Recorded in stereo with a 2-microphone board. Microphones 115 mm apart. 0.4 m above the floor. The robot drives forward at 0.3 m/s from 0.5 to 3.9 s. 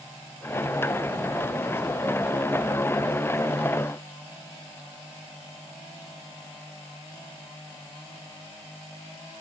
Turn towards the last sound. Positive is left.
No sound to turn to.